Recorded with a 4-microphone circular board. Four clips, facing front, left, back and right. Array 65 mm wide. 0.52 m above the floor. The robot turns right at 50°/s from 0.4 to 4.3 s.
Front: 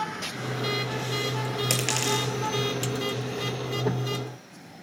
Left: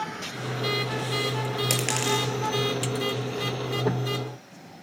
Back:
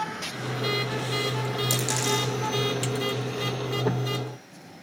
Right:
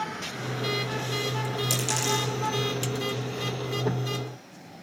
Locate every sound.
1.7 s a dropped coin: 45° left, 5 m; by 2.3 s 75° left, 5 m